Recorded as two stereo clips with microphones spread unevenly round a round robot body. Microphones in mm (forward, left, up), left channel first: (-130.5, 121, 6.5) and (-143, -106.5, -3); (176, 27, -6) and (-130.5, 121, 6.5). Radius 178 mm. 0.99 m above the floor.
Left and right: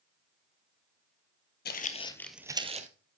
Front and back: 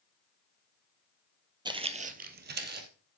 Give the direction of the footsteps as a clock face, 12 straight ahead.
9 o'clock.